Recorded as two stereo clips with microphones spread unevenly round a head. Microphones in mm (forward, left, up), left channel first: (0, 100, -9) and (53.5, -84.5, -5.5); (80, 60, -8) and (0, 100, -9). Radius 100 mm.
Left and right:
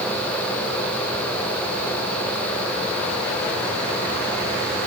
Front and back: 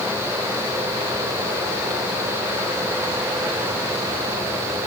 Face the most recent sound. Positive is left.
No sound to turn to.